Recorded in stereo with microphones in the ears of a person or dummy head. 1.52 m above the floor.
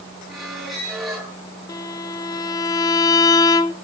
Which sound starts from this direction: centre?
A squeak, at 0.3 s.